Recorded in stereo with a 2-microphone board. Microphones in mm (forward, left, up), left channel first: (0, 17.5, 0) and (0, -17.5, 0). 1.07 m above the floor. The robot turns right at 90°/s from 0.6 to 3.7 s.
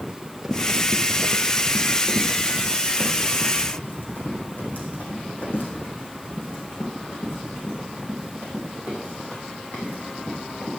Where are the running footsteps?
25° right (ahead or behind), 1.3 m; by 10.7 s 50° left (ahead or behind), 7.5 m.